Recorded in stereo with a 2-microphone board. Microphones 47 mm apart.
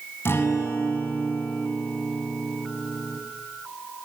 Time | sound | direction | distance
0.2 | a guitar | 60° left (ahead or behind) | 5 m